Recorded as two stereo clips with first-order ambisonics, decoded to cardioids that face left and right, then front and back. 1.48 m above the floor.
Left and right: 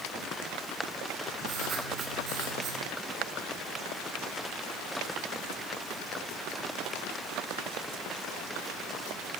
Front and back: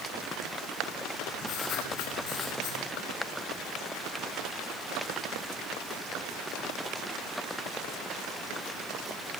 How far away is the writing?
About 4.5 m.